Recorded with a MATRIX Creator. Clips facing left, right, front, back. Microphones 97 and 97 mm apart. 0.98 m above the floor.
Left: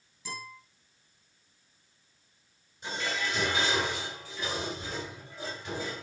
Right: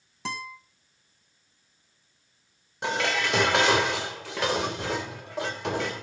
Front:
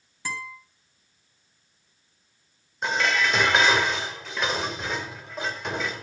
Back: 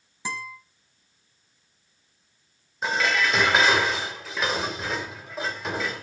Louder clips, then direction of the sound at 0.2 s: Right 7 dB, back 1 dB; 105° right.